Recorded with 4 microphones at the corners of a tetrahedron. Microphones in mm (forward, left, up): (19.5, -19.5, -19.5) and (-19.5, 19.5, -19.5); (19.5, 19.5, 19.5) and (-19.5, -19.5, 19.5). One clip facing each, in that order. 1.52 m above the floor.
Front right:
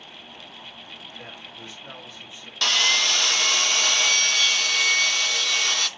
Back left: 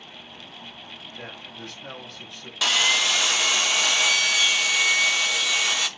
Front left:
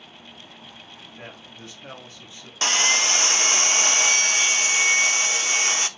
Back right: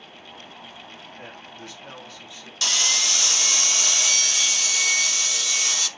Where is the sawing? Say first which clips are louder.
Even, front left 5 dB; 55° left, 0.6 m.